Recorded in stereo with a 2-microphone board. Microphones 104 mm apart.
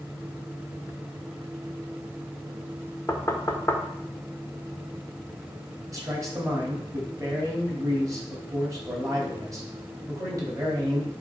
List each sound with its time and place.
3.1 s knocking: 25° left (ahead or behind), 1.1 m
5.9 s a man speaking: 30° right (ahead or behind), 3 m